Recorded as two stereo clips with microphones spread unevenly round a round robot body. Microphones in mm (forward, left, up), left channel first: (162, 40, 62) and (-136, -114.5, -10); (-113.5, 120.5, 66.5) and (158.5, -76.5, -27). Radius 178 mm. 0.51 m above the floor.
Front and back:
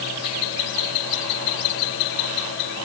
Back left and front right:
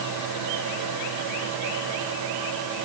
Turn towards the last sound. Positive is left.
No sound to turn to.